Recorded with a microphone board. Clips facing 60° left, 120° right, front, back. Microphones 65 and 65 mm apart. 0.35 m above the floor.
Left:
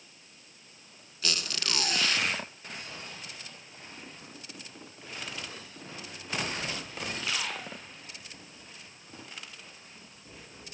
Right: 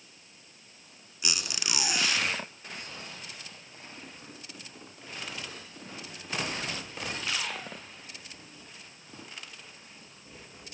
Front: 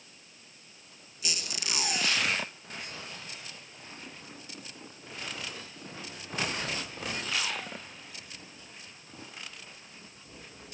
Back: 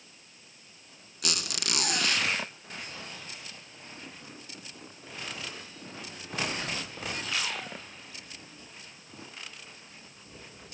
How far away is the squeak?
About 2 m.